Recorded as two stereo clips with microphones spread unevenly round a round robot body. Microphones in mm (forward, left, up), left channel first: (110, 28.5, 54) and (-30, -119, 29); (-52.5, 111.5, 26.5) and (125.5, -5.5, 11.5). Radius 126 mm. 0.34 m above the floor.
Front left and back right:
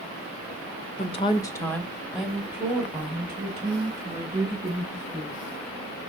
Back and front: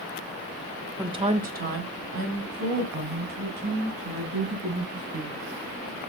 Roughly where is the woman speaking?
Ahead.